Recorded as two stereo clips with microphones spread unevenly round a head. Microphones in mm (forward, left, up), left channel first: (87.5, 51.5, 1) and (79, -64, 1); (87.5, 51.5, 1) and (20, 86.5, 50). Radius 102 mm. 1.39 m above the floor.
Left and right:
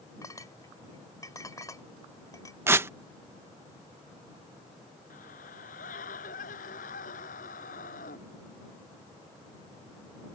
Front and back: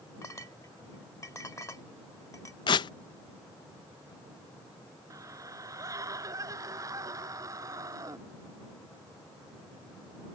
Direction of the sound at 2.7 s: 75° right.